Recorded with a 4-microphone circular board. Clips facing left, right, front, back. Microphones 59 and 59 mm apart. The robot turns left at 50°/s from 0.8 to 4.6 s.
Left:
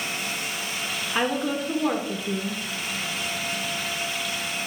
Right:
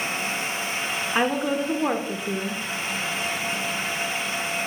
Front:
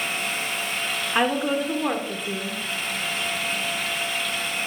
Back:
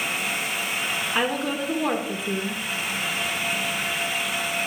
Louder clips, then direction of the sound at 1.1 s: Right 2 dB, front 4 dB; 45° right.